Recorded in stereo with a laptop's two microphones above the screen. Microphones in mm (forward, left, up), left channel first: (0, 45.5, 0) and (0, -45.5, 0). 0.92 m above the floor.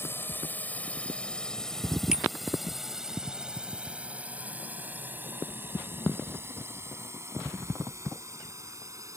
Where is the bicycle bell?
5° right (ahead or behind).